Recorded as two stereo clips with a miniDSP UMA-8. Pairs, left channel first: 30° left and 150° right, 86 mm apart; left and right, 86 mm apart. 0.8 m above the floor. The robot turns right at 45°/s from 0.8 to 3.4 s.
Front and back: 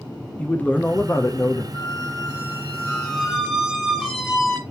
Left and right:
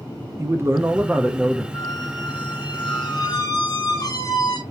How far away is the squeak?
About 1.4 m.